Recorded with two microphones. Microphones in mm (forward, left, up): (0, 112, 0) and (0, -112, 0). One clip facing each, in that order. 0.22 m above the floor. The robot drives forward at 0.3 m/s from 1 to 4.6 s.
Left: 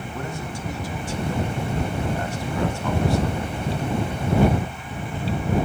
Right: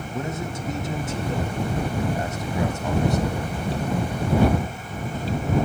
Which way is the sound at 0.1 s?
20° right (ahead or behind).